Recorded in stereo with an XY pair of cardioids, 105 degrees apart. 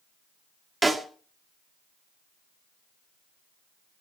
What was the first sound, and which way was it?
A snare drum, 10° right.